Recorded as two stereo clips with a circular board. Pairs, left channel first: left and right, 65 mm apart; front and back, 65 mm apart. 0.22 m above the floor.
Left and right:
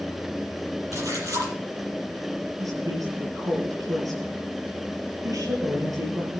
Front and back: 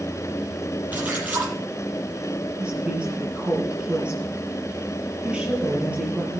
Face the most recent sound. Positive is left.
turn(degrees=-110)